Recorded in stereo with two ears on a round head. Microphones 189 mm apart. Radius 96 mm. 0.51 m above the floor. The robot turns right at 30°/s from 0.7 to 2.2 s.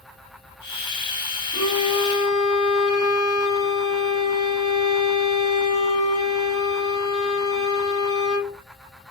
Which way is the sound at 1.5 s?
85° left.